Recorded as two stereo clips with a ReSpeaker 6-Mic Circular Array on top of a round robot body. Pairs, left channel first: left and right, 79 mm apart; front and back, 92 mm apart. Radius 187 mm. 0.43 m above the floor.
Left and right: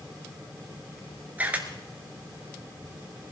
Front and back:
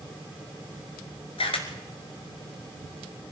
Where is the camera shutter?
15° right, 1.3 m.